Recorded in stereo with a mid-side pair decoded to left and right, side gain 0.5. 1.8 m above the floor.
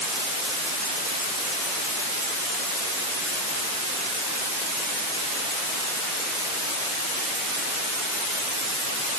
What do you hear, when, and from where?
Only background noise.